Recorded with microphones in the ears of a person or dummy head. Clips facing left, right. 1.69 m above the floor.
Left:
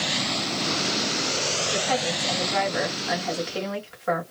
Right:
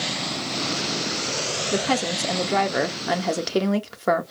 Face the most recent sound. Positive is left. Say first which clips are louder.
# right 4 dB
turn(degrees=-65)  # may be behind; listen again after turning